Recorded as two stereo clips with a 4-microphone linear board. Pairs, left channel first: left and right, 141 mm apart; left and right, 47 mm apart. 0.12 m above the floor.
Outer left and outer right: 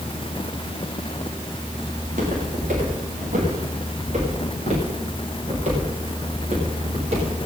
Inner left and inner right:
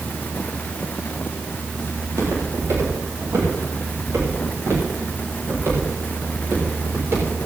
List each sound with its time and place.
2.0 s footsteps: 65° right (ahead or behind), 8.5 m; by 7.3 s 50° right (ahead or behind), 10.5 m